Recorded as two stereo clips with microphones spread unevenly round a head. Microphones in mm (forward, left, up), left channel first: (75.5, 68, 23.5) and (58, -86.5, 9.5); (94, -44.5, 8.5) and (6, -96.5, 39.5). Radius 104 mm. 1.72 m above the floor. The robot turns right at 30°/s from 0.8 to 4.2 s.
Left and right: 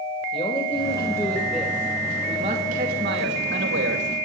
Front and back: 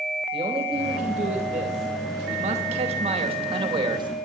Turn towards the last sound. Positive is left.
turn(degrees=-110)